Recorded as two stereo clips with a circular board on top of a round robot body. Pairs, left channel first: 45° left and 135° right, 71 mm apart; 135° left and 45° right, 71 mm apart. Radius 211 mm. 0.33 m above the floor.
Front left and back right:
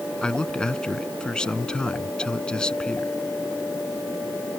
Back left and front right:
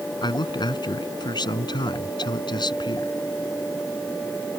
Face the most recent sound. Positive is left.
turn(degrees=125)